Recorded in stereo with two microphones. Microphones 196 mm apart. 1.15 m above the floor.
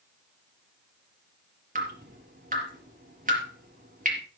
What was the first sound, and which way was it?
Dripping, 45° right (ahead or behind).